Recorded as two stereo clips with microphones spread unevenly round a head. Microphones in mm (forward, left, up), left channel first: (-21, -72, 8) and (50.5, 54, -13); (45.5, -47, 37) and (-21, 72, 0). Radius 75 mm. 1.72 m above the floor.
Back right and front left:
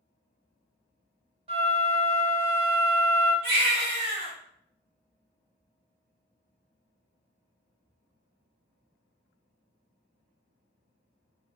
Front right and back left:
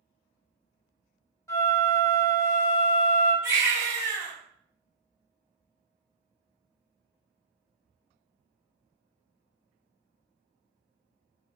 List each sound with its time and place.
1.5 s a flute: 10° left, 1.4 m
3.4 s a baby crying: 40° left, 1.7 m